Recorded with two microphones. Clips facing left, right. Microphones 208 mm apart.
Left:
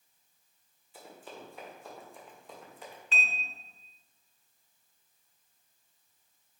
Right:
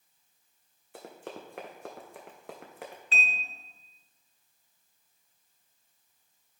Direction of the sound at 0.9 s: 70° right (ahead or behind).